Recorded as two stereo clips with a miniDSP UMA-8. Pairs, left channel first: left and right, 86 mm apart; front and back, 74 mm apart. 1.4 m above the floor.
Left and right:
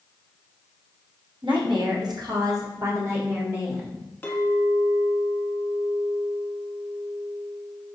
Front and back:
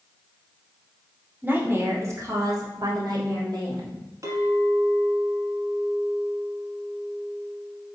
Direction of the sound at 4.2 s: 155° left.